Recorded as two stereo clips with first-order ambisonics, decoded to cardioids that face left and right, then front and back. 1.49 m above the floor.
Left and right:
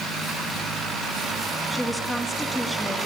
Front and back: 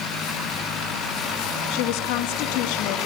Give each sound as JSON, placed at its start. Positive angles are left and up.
{"t": 1.7, "sound": "a woman speaking", "azimuth_deg": 5, "distance_m": 2.5}